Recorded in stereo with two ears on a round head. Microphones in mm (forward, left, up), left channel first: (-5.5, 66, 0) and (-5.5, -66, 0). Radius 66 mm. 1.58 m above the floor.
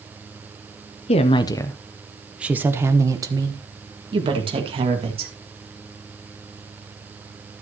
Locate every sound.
1.1 s a woman speaking: 45° left (ahead or behind), 0.8 m; by 5.3 s 40° right (ahead or behind), 2.5 m